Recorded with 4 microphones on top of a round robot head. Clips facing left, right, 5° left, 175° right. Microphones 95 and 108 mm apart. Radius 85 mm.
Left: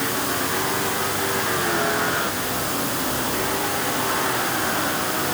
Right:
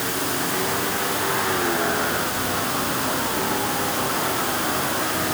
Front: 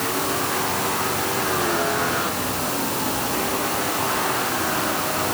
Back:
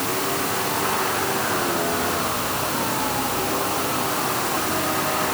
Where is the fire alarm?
No fire alarm in this recording.